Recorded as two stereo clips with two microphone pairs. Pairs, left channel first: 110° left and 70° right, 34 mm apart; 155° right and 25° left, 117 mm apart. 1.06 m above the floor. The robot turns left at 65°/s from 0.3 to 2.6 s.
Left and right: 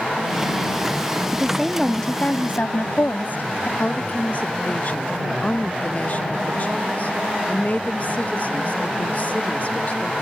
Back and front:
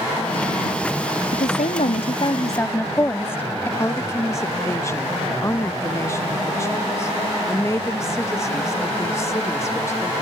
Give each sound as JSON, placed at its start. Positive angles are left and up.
{"t": 1.3, "sound": "a woman speaking", "azimuth_deg": -140}
{"t": 3.8, "sound": "a woman speaking", "azimuth_deg": 145}